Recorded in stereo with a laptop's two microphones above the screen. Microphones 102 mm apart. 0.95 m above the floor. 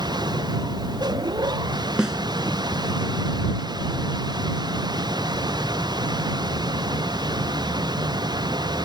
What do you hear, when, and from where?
0.0 s a machine running: 45° right (ahead or behind)
2.0 s a snare drum: 5° right (ahead or behind)